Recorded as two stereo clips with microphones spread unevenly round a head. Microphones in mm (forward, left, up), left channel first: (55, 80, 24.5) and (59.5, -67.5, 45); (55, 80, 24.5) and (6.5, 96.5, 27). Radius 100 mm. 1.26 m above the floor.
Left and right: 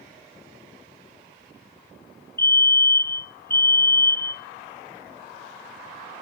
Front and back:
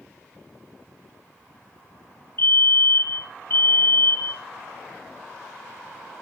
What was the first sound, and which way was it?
A fire alarm, 20° left.